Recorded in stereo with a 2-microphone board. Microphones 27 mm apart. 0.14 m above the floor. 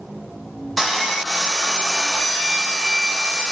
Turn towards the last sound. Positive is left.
turn(degrees=5)  # may be behind; listen again after turning